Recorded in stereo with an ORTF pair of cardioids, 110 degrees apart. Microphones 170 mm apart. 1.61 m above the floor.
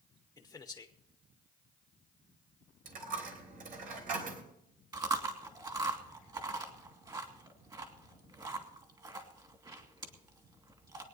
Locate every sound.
0.4 s a man speaking: 20° left, 1.2 m
2.9 s a dropped coin: 60° right, 3.5 m
4.9 s chewing: 25° right, 2.5 m